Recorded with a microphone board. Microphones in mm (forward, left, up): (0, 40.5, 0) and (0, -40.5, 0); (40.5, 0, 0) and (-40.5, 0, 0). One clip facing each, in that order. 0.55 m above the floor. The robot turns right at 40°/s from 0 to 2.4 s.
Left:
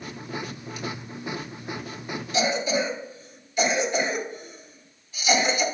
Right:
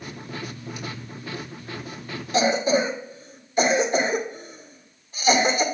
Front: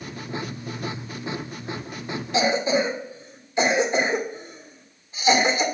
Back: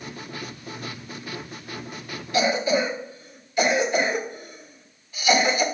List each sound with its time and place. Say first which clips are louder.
2.3 s a cough: right 4 dB, even; 60° right, 2.0 m; by 5.6 s 55° right, 2.0 m